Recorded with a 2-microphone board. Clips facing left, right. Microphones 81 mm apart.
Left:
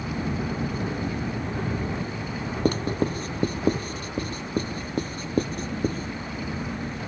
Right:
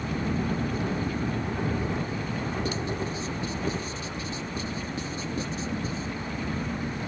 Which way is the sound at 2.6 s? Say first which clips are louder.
Left 6 dB; 50° left (ahead or behind).